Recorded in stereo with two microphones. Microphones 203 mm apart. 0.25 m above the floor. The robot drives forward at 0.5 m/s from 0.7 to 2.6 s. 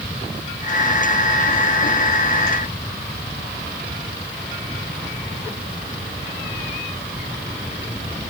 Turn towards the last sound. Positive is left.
No sound to turn to.